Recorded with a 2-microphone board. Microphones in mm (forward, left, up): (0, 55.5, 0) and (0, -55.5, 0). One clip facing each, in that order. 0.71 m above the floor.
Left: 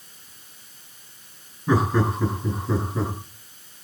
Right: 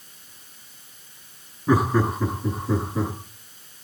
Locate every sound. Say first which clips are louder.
1.7 s laughter: right 1 dB; 5° right (ahead or behind), 8 m; by 3.1 s centre (ahead or behind), 9.5 m